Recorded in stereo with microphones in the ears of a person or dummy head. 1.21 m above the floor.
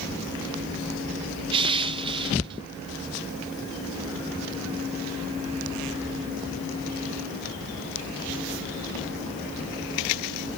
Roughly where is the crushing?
Right.